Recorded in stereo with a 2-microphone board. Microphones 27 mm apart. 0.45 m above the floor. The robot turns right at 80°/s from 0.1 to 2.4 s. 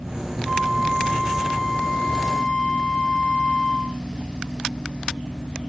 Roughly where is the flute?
Right.